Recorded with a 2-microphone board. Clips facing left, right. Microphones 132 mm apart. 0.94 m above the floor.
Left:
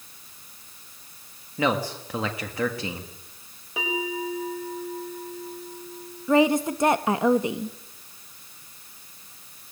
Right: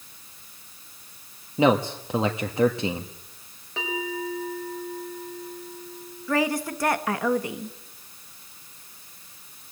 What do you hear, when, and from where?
1.6 s a man speaking: 25° right (ahead or behind), 1.7 m
3.8 s a bell: 10° left (ahead or behind), 5 m
6.3 s a woman speaking: 20° left (ahead or behind), 1.3 m